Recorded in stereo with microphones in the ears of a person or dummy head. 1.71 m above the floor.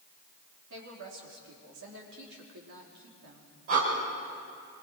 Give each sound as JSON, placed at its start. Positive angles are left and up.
{"t": 0.7, "sound": "a woman speaking", "side_deg": -65, "distance_m": 4.0}
{"t": 3.7, "sound": "breathing", "side_deg": -45, "distance_m": 4.5}